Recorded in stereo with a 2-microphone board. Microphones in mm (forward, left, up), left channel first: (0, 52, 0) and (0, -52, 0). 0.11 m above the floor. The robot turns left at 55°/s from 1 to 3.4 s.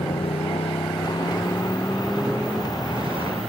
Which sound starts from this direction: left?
A motorcycle, at 0.0 s.